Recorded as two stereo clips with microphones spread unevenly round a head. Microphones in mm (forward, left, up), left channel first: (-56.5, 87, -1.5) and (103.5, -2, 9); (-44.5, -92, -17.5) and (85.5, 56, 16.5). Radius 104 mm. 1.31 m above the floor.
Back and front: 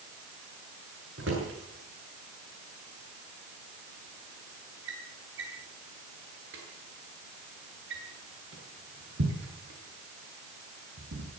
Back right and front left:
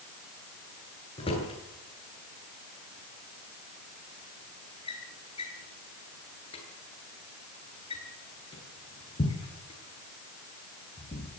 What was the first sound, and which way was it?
A drawer, 70° right.